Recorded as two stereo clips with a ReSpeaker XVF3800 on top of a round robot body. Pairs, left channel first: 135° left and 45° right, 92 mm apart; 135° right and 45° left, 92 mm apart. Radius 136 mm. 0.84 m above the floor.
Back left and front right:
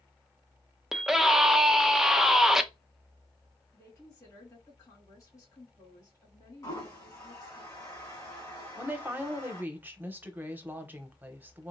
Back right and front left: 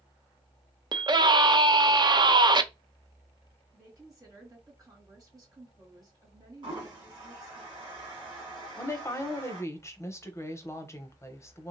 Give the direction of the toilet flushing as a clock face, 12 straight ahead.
9 o'clock.